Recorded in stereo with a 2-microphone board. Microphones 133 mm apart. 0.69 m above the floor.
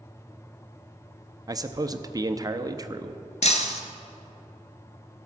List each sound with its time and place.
1.5 s a man speaking: 25° right (ahead or behind), 0.6 m
3.4 s breaking glass: 60° left (ahead or behind), 1.0 m